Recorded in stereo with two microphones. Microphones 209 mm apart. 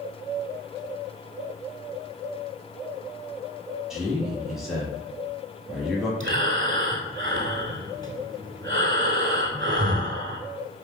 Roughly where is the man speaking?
Centre.